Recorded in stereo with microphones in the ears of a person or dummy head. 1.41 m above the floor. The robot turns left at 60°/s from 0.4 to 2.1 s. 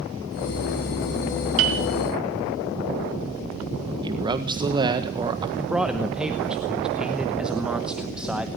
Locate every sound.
1.6 s a piano: 65° right (ahead or behind), 2.5 m
4.0 s a man speaking: 20° right (ahead or behind), 1.5 m
5.6 s a man speaking: centre (ahead or behind), 1.0 m